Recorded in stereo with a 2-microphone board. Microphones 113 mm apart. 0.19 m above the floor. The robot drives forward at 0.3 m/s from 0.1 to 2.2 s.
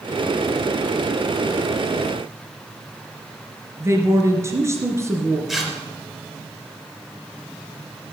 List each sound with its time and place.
3.8 s a woman speaking: 25° right (ahead or behind), 2.5 m
5.5 s tearing paper: 5° right (ahead or behind), 3.5 m